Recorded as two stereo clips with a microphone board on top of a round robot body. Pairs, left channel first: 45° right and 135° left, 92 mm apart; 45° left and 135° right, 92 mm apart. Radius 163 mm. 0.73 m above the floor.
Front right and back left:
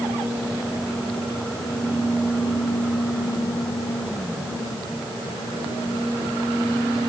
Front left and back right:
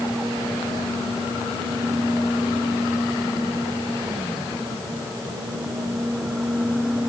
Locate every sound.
Only background noise.